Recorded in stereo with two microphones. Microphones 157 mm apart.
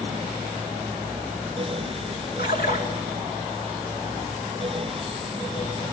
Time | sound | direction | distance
2.4 | a splash | 90° left | 3 m